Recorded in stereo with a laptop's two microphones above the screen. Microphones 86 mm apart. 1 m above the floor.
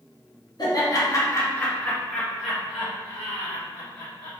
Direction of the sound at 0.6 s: 50° left (ahead or behind).